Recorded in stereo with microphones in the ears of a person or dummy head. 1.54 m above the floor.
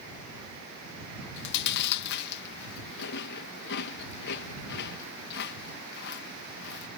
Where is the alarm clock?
No alarm clock in this recording.